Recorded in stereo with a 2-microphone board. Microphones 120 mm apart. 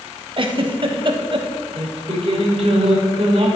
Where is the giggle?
45° right (ahead or behind), 0.7 m.